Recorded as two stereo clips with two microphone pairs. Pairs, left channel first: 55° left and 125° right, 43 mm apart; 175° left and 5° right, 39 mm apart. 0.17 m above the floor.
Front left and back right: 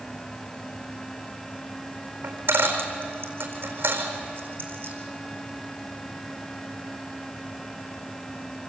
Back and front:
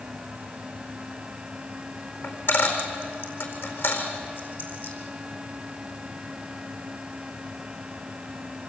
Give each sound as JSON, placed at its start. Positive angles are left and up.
{"t": 2.2, "sound": "a dropped coin", "azimuth_deg": -165, "distance_m": 4.5}